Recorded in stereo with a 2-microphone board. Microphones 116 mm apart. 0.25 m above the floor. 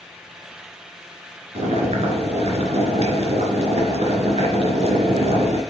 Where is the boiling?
70° right (ahead or behind), 3 m.